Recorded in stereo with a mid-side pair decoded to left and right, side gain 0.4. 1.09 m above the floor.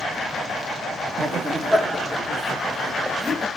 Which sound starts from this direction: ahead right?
Laughter, at 1.2 s.